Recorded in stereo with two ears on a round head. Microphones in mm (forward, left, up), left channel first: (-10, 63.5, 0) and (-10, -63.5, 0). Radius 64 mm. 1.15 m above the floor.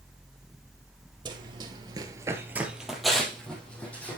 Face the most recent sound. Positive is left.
turn(degrees=10)  # may be behind; listen again after turning